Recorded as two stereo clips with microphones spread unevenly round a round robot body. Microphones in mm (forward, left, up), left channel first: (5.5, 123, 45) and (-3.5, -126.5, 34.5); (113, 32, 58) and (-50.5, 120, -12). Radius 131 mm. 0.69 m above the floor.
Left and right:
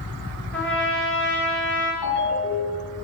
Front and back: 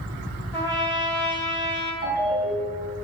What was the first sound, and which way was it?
A trumpet, 5° left.